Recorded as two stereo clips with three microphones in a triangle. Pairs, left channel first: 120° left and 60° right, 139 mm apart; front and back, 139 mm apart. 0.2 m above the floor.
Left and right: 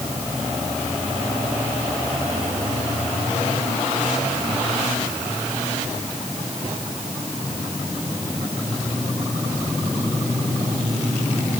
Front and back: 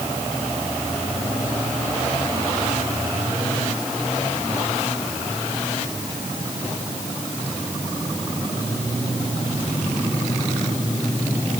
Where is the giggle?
I don't hear a giggle.